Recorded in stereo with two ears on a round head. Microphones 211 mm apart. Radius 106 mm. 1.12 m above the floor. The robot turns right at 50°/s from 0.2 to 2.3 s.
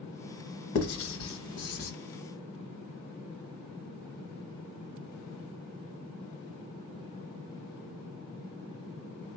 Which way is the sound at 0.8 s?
60° left (ahead or behind).